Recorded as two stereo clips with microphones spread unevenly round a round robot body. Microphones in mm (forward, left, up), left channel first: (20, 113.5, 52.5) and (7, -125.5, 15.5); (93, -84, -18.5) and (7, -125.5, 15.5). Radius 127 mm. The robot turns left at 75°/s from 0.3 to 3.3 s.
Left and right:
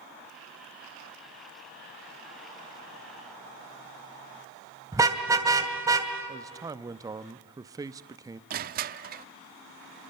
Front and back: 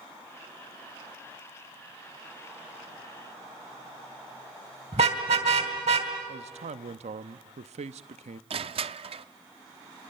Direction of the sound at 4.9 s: 170° right.